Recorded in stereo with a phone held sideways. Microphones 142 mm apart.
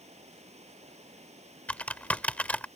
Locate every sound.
0.0 s running water: 50° right (ahead or behind)
1.7 s typing on a keyboard: 10° left (ahead or behind)